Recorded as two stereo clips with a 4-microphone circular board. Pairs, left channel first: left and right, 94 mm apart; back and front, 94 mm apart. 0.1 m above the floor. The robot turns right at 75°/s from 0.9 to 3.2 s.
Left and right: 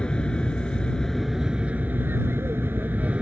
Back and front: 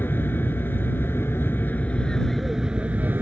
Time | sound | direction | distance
0.0 | an aircraft | 155° left | ?